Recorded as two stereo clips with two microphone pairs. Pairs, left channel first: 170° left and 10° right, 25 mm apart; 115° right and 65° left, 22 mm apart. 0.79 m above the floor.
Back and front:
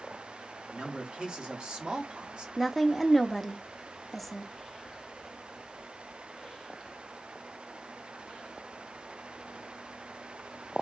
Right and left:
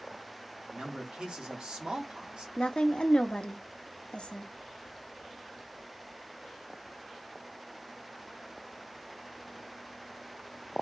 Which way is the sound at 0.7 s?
25° left.